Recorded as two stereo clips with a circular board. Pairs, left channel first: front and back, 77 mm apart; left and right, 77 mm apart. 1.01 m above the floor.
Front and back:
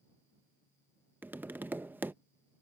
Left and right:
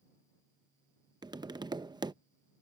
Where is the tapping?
115° right.